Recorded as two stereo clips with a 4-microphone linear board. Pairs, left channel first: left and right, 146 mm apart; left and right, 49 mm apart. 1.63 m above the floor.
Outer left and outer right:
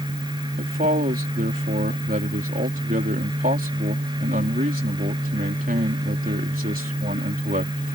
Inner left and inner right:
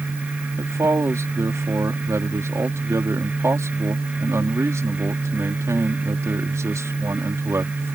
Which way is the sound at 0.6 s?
80° right.